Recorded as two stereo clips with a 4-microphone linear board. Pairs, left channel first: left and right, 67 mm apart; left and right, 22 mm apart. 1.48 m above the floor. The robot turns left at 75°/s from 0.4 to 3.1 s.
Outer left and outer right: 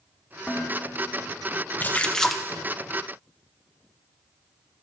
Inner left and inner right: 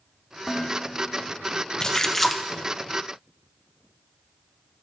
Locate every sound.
0.5 s dishes clattering: 165° left, 2.5 m; by 1.3 s 100° left, 2.5 m
1.8 s a splash: 40° left, 0.7 m; by 2.4 s 5° right, 0.7 m